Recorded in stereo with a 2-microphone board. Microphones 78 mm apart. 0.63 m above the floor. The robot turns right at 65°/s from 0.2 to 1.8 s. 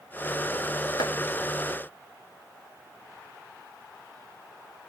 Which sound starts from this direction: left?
Chopping, at 1.0 s.